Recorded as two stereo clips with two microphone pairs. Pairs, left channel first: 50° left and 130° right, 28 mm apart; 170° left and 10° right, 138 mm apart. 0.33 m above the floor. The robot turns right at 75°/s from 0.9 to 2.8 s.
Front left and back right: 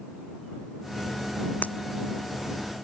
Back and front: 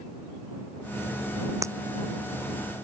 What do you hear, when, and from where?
1.6 s breaking glass: 55° left; by 1.7 s 65° left